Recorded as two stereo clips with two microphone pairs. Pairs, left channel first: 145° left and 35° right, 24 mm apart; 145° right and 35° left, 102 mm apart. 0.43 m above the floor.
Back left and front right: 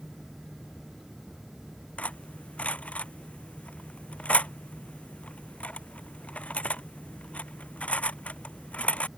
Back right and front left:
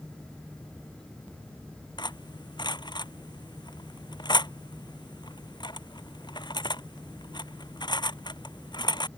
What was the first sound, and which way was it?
Cutlery clinking, 170° left.